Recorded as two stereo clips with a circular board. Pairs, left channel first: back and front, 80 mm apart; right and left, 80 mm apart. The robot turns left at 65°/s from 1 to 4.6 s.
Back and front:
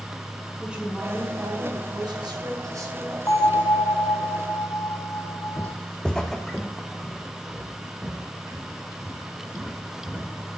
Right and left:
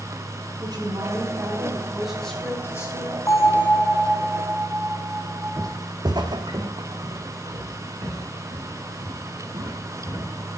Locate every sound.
0.6 s a woman speaking: 75° left, 4 m; by 3.2 s 65° right, 4 m
3.3 s a bell: 135° right, 1.7 m; by 5.7 s 140° left, 1.7 m
5.6 s footsteps: 120° left, 0.7 m; by 10.3 s 85° left, 5.5 m